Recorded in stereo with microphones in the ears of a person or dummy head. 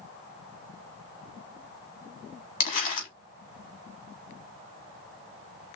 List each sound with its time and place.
2.6 s crumpling: 45° left (ahead or behind), 1.5 m